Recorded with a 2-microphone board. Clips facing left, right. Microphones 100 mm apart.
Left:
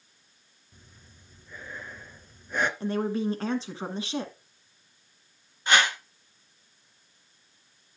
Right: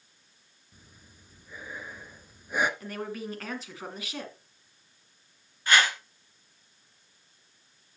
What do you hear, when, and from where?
0.7 s breathing: 10° right (ahead or behind), 1.0 m
2.8 s a woman speaking: 30° left (ahead or behind), 1.5 m
5.7 s a whoosh: 20° left (ahead or behind), 2.5 m